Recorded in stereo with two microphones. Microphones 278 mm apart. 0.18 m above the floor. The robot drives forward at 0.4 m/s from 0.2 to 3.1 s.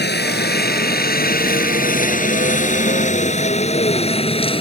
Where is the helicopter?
35° left (ahead or behind); by 4.6 s 20° left (ahead or behind).